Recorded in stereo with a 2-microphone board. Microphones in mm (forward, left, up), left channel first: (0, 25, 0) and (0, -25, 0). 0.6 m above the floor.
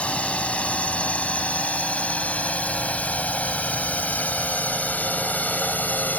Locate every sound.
0.0 s a drone: 25° left (ahead or behind); by 6.2 s 35° left (ahead or behind)